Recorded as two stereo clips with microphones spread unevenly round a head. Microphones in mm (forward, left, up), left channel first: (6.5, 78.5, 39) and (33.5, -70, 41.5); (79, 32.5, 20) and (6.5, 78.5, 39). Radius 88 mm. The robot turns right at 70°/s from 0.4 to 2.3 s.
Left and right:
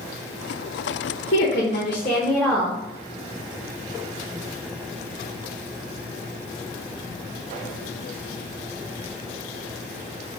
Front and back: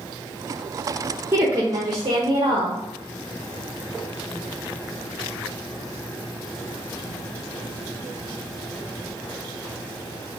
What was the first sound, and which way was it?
A woman speaking, 95° left.